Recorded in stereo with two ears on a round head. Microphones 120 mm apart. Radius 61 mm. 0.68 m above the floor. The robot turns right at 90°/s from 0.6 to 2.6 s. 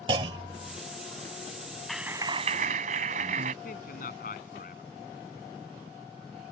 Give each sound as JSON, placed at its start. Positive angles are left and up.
{"t": 0.1, "sound": "a clunk", "side_deg": -35}
{"t": 1.9, "sound": "a clap", "azimuth_deg": 175}
{"t": 3.6, "sound": "a man speaking", "side_deg": 70}